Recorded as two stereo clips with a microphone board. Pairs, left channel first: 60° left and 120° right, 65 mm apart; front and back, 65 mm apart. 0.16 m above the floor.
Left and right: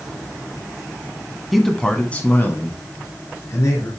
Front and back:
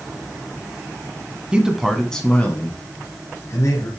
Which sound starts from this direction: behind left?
A man speaking, at 1.5 s.